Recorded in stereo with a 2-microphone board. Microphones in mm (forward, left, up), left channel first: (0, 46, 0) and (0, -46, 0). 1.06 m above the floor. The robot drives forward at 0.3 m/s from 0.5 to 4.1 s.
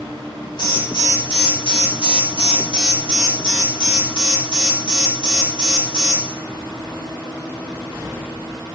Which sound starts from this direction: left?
An alarm, at 0.6 s.